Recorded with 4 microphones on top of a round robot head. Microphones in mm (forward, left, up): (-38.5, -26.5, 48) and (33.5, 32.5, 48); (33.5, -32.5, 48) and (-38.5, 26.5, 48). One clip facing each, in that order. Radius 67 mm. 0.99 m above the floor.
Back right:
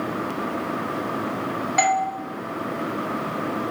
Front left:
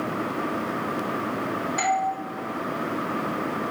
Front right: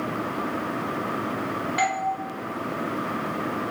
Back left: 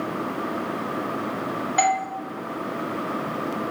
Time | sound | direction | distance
1.8 | a doorbell | 165° right | 3.5 m